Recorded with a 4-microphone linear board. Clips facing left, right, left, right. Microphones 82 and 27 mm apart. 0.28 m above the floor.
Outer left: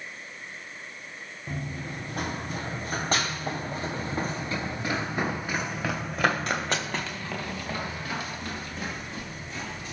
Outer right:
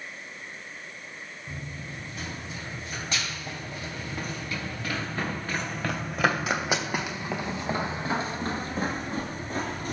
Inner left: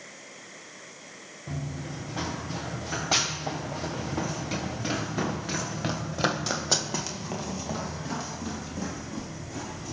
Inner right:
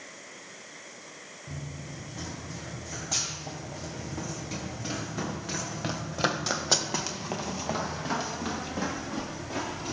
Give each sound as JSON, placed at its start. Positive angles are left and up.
{"t": 1.5, "sound": "running footsteps", "side_deg": 55, "distance_m": 3.0}